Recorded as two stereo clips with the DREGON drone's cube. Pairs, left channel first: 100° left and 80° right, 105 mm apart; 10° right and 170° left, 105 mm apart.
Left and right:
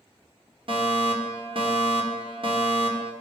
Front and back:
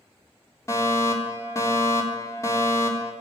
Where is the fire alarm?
65° right, 3.5 m.